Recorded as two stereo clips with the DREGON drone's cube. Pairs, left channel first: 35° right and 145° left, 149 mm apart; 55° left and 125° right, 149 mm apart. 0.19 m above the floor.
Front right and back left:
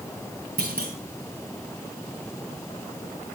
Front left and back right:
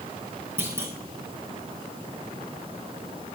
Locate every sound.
0.6 s a clunk: 160° left, 3 m